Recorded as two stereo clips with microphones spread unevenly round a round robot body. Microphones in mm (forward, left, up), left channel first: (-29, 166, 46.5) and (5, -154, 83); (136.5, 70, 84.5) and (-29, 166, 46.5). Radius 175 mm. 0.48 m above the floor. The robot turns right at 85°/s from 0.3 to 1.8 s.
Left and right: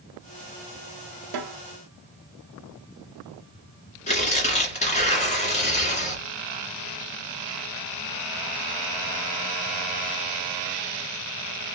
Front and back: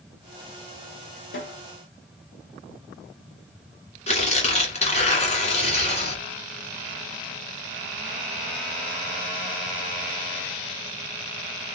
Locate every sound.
1.3 s a snare drum: 65° right, 1.0 m; by 1.6 s 40° right, 1.0 m
4.1 s tearing paper: 25° left, 2.0 m